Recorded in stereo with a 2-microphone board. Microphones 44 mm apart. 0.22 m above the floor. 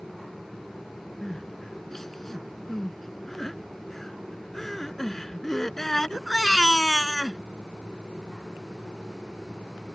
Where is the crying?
10° left (ahead or behind).